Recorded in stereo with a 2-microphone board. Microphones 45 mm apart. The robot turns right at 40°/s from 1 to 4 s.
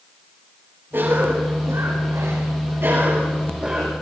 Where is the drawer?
I don't hear a drawer.